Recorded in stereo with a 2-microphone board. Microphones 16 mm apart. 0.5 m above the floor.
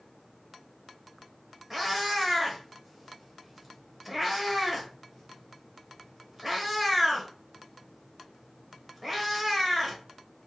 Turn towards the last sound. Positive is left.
turn(degrees=-5)  # may be behind; listen again after turning